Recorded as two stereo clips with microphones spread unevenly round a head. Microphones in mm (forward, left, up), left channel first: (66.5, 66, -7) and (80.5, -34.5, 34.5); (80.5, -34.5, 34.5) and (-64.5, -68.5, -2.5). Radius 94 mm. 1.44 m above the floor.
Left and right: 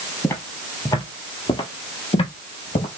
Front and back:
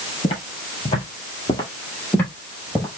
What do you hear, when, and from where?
0.2 s footsteps: 15° left, 2.0 m; by 2.9 s 85° left, 1.8 m